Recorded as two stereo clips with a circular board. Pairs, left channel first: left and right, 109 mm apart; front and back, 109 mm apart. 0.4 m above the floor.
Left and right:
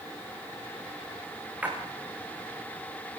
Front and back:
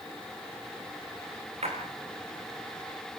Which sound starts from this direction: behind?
A splash, at 1.6 s.